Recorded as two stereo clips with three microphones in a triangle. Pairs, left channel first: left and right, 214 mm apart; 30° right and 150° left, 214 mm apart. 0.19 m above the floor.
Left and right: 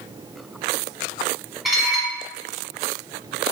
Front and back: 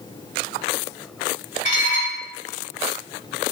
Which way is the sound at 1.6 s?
Straight ahead.